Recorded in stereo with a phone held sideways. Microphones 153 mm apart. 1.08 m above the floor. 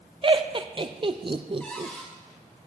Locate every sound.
0.2 s laughter: 35° right (ahead or behind), 0.5 m
1.6 s a cupboard door: 10° left (ahead or behind), 2 m